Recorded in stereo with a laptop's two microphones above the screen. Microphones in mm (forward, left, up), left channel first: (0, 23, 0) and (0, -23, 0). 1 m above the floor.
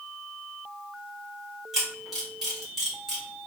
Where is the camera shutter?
10° right (ahead or behind), 1.4 m.